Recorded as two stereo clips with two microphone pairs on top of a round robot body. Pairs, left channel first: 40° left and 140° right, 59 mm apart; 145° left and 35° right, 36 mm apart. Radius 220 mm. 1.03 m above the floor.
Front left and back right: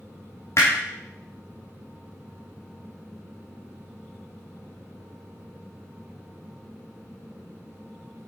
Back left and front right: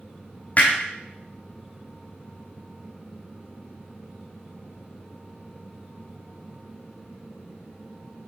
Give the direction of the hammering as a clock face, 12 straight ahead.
9 o'clock.